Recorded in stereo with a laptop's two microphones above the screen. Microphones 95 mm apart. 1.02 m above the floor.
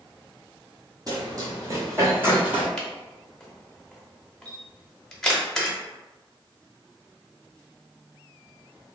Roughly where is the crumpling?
I don't hear crumpling.